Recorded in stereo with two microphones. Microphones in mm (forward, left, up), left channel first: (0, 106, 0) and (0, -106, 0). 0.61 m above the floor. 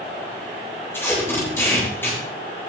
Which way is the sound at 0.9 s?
10° left (ahead or behind).